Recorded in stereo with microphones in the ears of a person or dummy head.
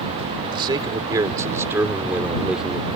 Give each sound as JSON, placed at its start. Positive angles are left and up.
{"t": 0.4, "sound": "a man speaking", "side_deg": -30}